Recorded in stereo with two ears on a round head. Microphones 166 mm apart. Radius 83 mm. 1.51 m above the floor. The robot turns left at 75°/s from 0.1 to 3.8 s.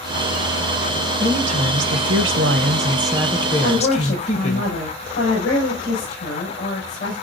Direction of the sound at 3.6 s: 55° left (ahead or behind).